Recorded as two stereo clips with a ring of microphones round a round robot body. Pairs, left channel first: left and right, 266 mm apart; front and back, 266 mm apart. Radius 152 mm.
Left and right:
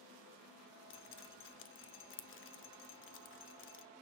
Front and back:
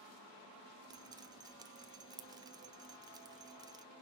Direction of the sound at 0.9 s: 110° left.